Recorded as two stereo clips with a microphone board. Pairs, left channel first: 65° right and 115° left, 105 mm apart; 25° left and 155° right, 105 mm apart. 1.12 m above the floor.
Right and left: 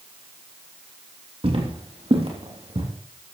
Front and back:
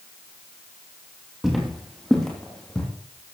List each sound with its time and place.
1.4 s footsteps: 115° left, 3 m; by 2.9 s 105° left, 3.5 m